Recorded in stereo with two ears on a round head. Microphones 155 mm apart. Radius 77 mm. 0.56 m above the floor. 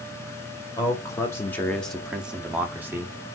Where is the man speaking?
20° left (ahead or behind), 0.8 m; by 3.2 s 15° right (ahead or behind), 1.1 m.